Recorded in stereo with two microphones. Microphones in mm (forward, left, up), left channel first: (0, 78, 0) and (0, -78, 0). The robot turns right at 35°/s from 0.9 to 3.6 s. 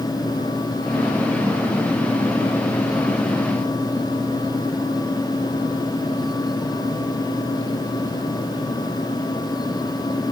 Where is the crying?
No crying in this recording.